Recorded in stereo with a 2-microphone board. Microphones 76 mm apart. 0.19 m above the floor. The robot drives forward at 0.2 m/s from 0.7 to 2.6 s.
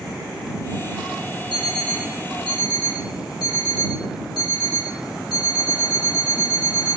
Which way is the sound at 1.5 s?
75° left (ahead or behind).